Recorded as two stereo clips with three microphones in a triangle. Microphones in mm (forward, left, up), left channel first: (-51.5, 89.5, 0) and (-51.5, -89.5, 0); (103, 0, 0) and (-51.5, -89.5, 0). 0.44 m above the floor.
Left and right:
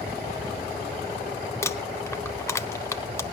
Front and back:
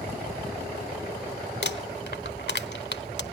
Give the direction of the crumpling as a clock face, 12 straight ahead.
11 o'clock.